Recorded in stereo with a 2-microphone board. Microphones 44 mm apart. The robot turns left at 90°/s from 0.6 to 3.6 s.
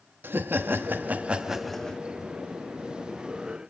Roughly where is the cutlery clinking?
I don't hear cutlery clinking.